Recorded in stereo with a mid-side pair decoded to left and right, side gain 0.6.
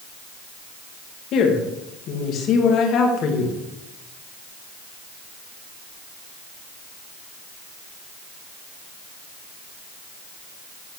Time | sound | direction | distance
1.3 | a woman speaking | 60° left | 1.6 m